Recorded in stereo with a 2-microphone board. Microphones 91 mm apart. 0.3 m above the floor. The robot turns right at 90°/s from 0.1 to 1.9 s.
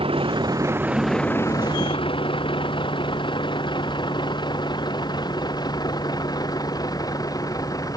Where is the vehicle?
80° right; by 8.0 s 40° left (ahead or behind).